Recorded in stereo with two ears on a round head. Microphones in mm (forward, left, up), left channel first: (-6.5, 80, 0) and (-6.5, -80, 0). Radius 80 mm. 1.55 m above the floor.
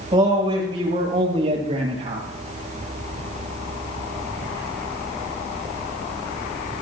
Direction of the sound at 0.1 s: 25° right (ahead or behind).